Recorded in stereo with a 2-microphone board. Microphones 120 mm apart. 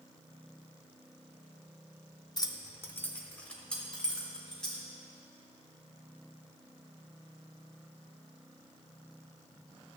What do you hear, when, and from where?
2.4 s keys jangling: 35° left (ahead or behind), 0.6 m; by 4.8 s 5° left (ahead or behind), 2.5 m